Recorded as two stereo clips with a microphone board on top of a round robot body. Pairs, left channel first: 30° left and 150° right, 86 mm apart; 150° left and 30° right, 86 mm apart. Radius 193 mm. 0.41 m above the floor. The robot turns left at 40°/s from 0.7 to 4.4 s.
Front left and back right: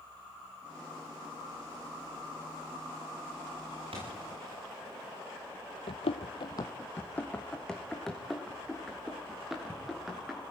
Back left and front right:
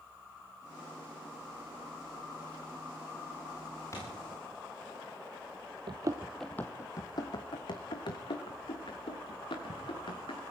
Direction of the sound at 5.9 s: 5° left.